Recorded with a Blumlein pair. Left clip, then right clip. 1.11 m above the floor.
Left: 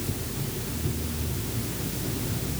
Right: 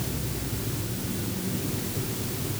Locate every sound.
Only background noise.